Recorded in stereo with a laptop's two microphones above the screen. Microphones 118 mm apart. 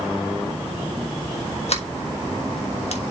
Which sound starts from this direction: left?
A sliding door, at 1.7 s.